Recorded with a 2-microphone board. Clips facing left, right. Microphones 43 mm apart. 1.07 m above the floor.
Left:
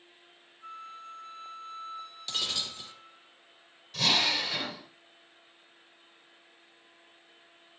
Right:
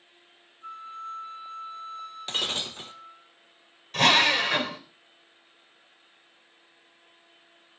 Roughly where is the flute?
Centre.